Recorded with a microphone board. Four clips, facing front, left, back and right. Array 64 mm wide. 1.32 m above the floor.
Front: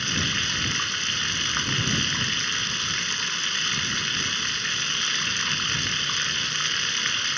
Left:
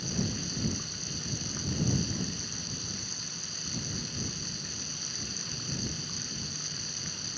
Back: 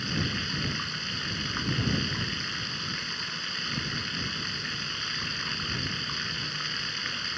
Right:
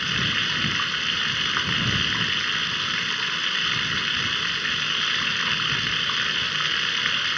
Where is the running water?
75° right.